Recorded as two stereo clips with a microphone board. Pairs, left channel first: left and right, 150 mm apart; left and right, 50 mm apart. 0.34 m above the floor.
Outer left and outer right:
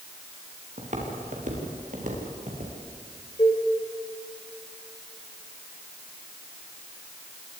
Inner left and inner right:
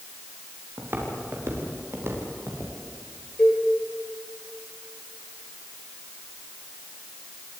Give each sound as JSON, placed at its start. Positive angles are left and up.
{"t": 0.8, "sound": "footsteps", "side_deg": -50, "distance_m": 6.0}
{"t": 3.4, "sound": "a cowbell", "side_deg": 25, "distance_m": 5.5}